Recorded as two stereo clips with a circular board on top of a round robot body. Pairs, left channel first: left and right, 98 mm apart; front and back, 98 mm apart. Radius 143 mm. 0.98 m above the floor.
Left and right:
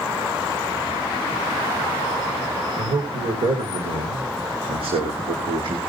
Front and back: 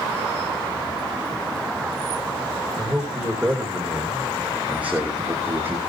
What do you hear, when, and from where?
2.8 s a man speaking: 90° right, 4 m; by 5.8 s 115° right, 2.5 m